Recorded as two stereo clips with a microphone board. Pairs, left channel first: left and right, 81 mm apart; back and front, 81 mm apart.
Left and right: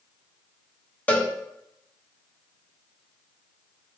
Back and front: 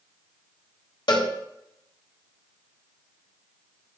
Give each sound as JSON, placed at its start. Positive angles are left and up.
{"t": 1.1, "sound": "a cowbell", "azimuth_deg": 160, "distance_m": 1.7}